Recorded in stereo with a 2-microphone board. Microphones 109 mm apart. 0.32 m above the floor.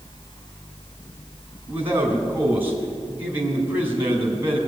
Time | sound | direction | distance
1.7 | a man speaking | 20° right (ahead or behind) | 3 m